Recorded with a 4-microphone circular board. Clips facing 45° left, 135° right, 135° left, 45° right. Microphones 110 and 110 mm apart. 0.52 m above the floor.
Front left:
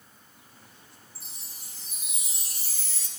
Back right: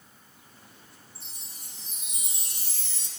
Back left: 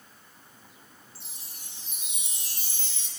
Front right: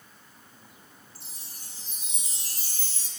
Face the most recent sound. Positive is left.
turn(degrees=-40)